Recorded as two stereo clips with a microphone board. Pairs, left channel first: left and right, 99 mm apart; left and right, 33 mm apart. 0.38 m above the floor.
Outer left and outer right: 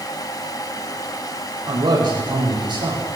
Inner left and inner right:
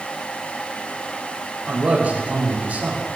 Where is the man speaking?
55° right (ahead or behind), 8 m.